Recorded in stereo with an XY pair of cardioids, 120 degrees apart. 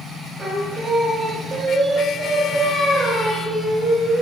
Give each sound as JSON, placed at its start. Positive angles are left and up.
{"t": 0.4, "sound": "singing", "azimuth_deg": -30, "distance_m": 0.5}